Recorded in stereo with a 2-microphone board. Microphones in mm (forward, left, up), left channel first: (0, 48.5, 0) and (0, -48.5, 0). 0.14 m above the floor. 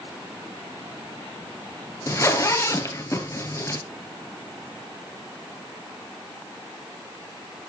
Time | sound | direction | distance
2.1 | a zipper | 30° left (ahead or behind) | 1.4 m